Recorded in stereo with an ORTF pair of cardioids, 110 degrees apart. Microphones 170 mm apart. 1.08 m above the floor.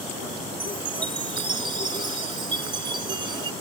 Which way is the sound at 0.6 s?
30° right.